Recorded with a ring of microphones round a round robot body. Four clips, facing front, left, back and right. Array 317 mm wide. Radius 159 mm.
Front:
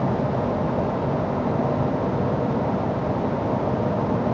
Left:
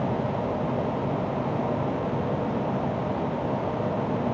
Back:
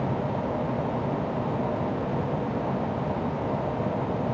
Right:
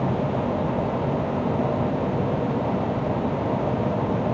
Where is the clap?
I don't hear a clap.